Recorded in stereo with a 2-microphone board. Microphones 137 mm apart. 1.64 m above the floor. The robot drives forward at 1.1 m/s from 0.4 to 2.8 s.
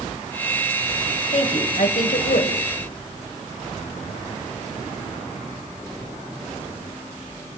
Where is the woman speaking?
55° left (ahead or behind), 1.5 m; by 2.6 s 65° left (ahead or behind), 1.3 m.